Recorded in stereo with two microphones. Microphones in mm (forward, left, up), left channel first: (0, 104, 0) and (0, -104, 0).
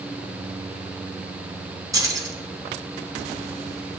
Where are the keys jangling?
15° right (ahead or behind), 2.5 m.